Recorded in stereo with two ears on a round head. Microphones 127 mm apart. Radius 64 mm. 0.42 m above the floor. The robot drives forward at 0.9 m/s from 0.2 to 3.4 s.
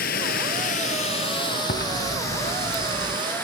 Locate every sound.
0.0 s running water: 65° left (ahead or behind), 0.8 m; by 3.5 s 15° left (ahead or behind), 3 m
1.7 s chewing: 60° left (ahead or behind), 0.8 m; by 3.2 s 35° left (ahead or behind), 1.2 m